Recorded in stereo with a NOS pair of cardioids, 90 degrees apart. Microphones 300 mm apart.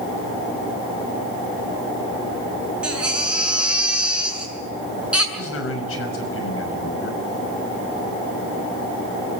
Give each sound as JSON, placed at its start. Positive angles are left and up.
{"t": 2.8, "sound": "a baby crying", "azimuth_deg": -5, "distance_m": 7.0}
{"t": 5.3, "sound": "a man speaking", "azimuth_deg": 50, "distance_m": 6.0}